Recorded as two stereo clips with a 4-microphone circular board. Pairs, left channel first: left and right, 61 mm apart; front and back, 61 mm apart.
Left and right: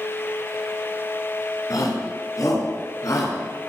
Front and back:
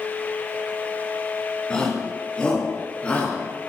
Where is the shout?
75° left, 4 m; by 3.7 s 65° left, 4.5 m.